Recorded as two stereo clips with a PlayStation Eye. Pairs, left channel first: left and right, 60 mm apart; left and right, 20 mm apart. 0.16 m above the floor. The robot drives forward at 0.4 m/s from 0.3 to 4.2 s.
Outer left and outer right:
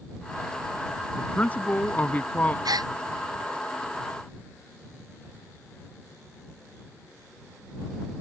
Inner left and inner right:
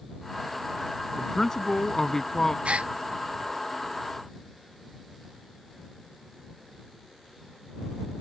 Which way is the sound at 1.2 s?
25° left (ahead or behind).